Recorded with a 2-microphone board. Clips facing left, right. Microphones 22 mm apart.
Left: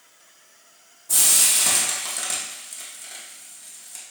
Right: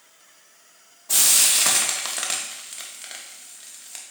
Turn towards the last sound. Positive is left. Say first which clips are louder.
# right 1 dB
turn(degrees=-35)  # may be behind; listen again after turning